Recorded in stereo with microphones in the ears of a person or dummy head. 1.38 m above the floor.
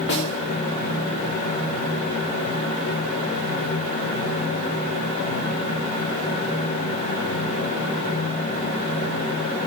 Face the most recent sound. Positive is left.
turn(degrees=60)  # may be behind; listen again after turning